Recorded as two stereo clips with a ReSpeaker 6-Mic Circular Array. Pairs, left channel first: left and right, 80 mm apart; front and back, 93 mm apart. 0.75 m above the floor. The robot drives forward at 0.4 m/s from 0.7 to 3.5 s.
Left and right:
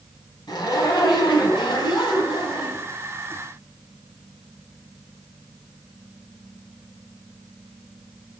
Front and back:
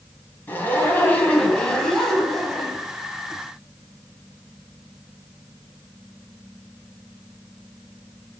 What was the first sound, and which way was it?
A zipper, 65° left.